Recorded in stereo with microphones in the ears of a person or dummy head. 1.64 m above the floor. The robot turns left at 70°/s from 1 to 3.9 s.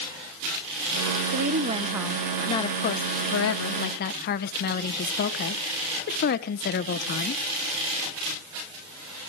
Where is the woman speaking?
120° right, 1.2 m; by 7.4 s 55° left, 1.2 m.